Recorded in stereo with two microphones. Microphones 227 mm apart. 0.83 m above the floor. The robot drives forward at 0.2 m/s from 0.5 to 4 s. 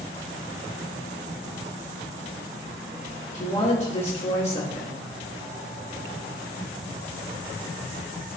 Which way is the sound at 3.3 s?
30° left (ahead or behind).